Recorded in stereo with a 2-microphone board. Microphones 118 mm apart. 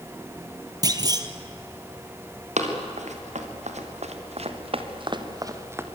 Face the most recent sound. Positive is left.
turn(degrees=-20)  # may be behind; listen again after turning